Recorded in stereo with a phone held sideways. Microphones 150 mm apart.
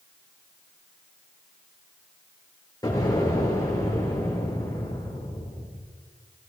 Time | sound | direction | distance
2.8 | an explosion | 25° left (ahead or behind) | 7.5 m